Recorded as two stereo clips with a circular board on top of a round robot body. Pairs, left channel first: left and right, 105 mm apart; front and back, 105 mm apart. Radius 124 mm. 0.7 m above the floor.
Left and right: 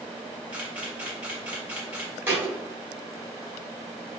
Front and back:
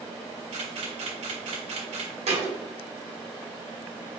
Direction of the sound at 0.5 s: 165° right.